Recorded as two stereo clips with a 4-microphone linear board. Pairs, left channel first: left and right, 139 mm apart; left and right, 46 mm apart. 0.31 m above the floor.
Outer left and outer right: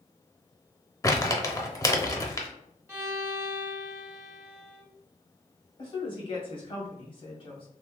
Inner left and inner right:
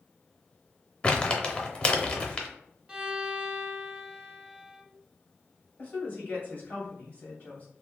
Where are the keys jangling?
I don't hear keys jangling.